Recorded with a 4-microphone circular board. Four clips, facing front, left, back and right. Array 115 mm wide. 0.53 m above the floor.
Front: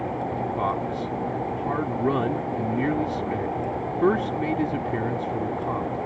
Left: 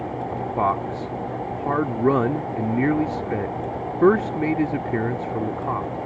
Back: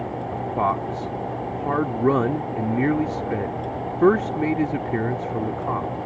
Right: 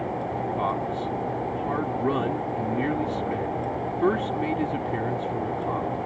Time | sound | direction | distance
0.3 | a man speaking | 130° left | ?